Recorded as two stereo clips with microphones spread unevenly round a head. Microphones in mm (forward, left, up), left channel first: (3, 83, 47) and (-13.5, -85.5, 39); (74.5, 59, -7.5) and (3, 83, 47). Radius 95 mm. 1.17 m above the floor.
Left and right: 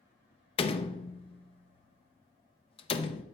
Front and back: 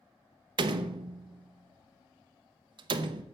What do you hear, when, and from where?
0.6 s a door slam: 145° left, 0.6 m